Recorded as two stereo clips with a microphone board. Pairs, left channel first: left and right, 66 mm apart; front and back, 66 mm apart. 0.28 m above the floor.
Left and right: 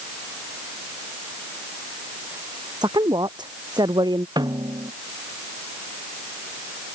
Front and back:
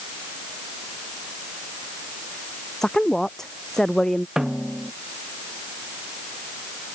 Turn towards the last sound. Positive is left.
turn(degrees=-100)